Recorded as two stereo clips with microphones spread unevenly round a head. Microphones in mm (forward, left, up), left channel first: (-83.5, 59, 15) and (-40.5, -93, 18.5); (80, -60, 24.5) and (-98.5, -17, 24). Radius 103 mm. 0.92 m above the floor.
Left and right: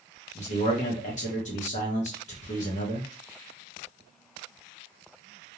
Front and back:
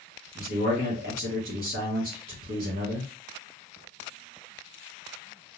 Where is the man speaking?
135° left, 0.9 m.